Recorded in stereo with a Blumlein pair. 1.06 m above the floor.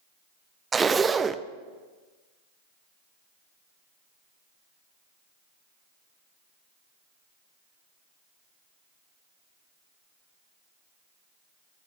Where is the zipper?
15° right, 0.6 m.